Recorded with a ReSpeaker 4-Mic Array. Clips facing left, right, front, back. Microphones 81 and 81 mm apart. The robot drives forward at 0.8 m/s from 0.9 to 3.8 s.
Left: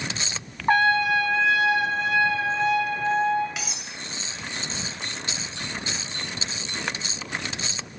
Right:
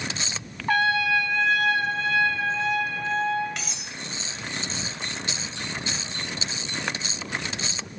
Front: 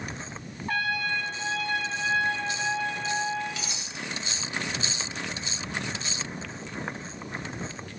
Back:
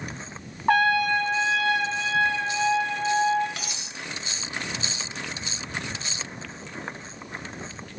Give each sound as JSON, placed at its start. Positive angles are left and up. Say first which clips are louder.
{"t": 0.7, "sound": "a trumpet", "louder": "left 3 dB, back 9 dB", "azimuth_deg": 150, "distance_m": 0.6}
{"t": 3.6, "sound": "cutlery clinking", "louder": "left 1 dB, even", "azimuth_deg": 175, "distance_m": 0.6}